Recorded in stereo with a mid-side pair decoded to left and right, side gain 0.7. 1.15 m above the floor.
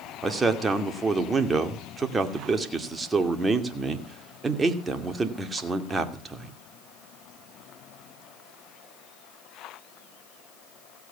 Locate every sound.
0.2 s a man speaking: 20° right, 2.5 m